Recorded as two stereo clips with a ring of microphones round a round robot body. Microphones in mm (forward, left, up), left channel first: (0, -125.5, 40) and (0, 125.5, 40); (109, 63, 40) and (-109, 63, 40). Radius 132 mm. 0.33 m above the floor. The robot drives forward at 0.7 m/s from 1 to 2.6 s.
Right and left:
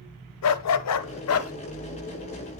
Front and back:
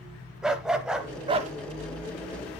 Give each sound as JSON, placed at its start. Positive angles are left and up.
{"t": 0.4, "sound": "a dog barking", "azimuth_deg": -95, "distance_m": 0.7}